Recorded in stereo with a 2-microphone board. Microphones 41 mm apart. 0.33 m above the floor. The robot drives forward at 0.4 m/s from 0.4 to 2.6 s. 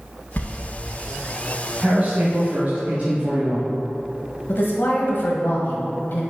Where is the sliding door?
50° left (ahead or behind), 1.3 m.